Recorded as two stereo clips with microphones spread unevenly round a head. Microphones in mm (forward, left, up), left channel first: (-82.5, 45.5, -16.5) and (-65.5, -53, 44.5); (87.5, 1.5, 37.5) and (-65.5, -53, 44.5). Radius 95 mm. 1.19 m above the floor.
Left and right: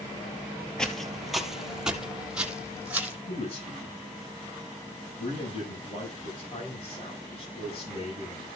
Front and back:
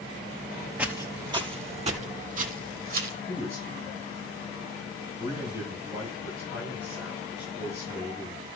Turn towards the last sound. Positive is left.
turn(degrees=130)